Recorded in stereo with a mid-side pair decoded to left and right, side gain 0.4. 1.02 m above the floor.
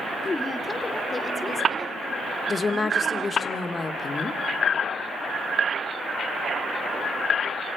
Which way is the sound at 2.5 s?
35° left.